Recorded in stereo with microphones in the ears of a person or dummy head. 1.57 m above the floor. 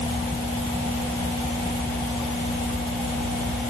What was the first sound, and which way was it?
Only background noise.